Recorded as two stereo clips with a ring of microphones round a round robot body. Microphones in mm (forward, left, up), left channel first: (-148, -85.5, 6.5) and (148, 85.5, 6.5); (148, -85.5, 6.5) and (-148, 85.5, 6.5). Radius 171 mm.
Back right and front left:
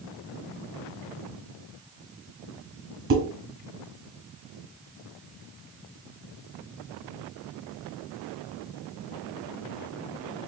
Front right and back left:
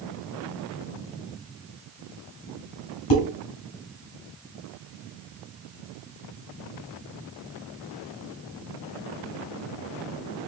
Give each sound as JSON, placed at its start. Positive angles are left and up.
{"t": 3.1, "sound": "dishes clattering", "azimuth_deg": -25, "distance_m": 2.5}